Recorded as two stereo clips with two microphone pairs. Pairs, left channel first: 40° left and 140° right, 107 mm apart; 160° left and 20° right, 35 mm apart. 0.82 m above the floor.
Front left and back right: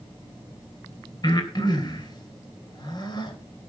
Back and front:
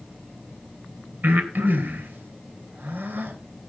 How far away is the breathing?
About 3 m.